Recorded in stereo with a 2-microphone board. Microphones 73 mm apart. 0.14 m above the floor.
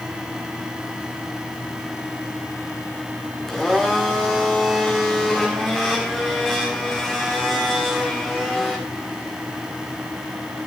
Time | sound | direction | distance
3.5 | a blender | 5° left (ahead or behind) | 4 m